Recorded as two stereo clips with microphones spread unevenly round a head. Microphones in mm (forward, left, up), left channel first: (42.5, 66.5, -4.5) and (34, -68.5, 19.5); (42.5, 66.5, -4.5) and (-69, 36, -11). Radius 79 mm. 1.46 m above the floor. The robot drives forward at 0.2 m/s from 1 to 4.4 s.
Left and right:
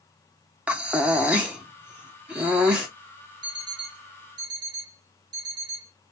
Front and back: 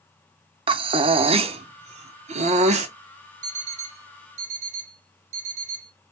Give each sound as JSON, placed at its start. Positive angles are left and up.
{"t": 0.7, "sound": "breathing", "azimuth_deg": -160, "distance_m": 0.5}
{"t": 3.4, "sound": "an alarm clock", "azimuth_deg": -150, "distance_m": 1.9}